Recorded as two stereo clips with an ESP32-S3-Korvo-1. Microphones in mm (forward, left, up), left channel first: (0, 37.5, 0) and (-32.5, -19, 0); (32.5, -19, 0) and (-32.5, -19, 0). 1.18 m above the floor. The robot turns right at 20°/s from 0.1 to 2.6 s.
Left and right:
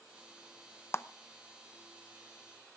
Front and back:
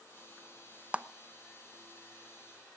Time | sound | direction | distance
0.9 | a clap | 110° left | 0.7 m